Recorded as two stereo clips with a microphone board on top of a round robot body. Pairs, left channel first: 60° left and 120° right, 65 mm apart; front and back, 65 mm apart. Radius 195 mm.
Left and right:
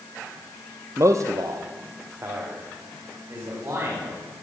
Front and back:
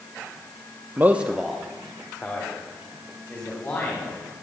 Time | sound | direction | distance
1.0 | a man speaking | 135° right | 1.0 m